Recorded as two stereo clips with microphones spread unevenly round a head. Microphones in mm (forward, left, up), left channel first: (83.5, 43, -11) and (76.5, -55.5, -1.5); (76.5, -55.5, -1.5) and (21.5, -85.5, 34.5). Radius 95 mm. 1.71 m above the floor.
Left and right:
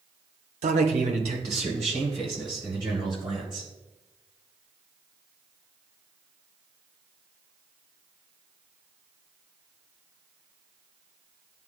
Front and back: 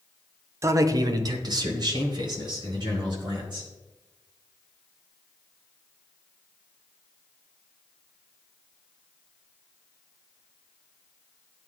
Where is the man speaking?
105° right, 0.5 m; by 3.7 s 165° right, 3 m.